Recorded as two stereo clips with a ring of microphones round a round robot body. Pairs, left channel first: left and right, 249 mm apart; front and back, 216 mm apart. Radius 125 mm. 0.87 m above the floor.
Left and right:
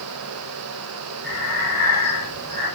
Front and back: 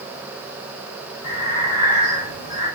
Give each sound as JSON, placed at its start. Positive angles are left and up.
{"t": 1.2, "sound": "breathing", "azimuth_deg": -35, "distance_m": 7.0}